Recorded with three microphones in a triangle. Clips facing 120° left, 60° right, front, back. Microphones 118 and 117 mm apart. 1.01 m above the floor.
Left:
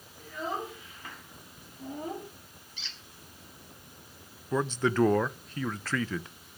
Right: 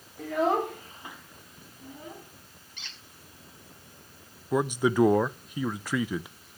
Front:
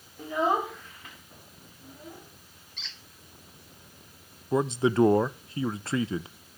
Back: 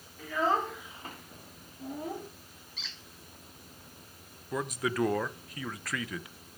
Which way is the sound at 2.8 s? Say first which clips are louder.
Even, front 1 dB; 90° right.